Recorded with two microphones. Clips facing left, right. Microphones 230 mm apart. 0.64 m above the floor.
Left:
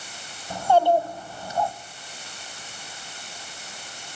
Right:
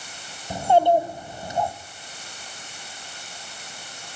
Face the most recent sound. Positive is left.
turn(degrees=-20)  # may be behind; listen again after turning